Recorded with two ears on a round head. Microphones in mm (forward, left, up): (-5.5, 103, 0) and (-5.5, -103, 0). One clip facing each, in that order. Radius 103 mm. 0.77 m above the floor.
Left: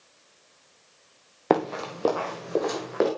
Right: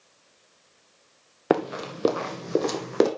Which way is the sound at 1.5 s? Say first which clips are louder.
Even; 10° right (ahead or behind).